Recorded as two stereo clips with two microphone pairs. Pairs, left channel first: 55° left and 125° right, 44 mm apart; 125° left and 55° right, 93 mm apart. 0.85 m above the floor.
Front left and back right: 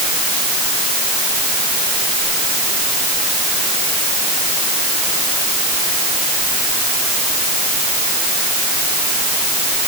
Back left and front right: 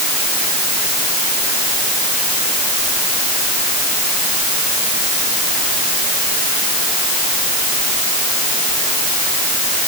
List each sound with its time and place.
Only background noise.